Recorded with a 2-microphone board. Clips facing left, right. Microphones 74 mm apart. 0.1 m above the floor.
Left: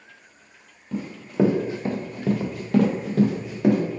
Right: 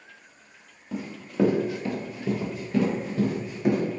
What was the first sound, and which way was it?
Running footsteps, 5° right (ahead or behind).